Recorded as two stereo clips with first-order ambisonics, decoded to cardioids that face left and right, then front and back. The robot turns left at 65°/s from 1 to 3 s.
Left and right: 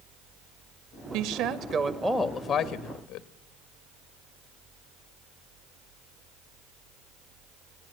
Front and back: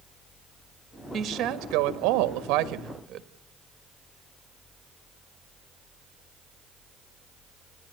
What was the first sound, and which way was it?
A woman speaking, 110° right.